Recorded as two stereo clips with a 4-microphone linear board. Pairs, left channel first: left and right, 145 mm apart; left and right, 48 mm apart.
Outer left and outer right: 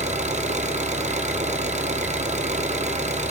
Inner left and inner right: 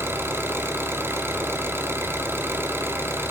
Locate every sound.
0.0 s an engine running: 50° right (ahead or behind), 1.5 m